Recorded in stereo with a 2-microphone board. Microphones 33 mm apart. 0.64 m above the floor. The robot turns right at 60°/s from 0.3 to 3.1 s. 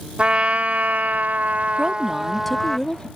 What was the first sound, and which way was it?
A trumpet, 135° right.